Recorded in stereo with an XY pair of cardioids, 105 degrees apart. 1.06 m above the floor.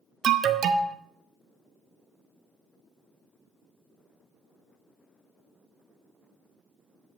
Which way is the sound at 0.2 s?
55° right.